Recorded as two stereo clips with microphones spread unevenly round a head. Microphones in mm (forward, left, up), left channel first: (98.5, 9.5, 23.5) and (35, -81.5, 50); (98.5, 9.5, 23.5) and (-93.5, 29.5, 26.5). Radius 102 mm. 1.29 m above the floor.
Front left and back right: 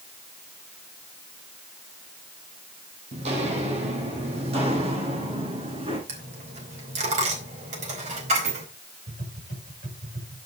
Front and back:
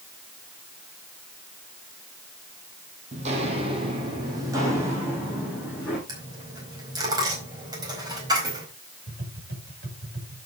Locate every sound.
3.1 s footsteps: 130° right, 3 m; by 6.0 s 100° right, 5 m
6.1 s a dropped coin: 115° right, 4 m
9.1 s tapping: 145° right, 6.5 m